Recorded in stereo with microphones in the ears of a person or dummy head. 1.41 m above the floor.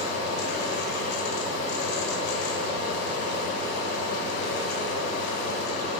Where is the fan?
70° left (ahead or behind), 1.2 m.